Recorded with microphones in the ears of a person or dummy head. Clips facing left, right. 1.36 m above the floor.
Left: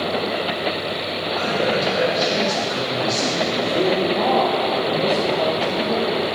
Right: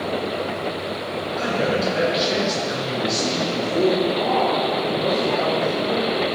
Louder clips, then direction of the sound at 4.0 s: Left 2 dB; 65° left (ahead or behind).